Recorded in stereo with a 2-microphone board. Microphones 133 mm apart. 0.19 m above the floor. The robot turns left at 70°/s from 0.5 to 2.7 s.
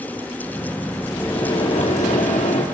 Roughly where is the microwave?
Behind.